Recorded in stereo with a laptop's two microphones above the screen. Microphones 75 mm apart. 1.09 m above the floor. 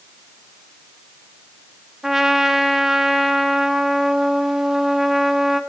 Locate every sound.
2.0 s a trumpet: 5° right (ahead or behind), 0.6 m